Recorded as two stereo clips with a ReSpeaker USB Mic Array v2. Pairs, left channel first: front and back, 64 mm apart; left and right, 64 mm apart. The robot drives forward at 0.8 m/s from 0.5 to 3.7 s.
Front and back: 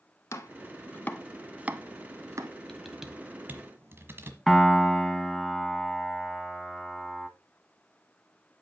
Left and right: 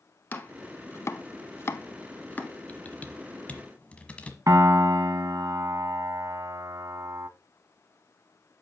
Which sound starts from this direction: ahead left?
Chopping, at 0.3 s.